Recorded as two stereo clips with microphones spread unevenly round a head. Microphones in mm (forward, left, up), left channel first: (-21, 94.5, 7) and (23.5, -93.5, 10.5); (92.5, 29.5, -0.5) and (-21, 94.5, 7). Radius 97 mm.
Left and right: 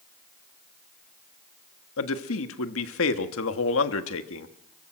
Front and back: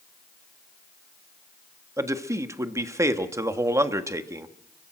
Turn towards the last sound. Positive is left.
turn(degrees=80)